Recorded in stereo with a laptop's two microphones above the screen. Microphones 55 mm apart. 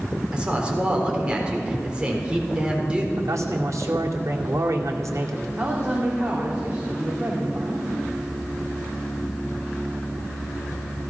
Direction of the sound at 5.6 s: 25° right (ahead or behind).